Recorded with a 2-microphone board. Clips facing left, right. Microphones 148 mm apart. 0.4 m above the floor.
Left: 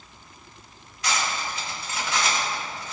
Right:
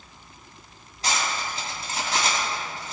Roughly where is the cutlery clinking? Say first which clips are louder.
Even; right.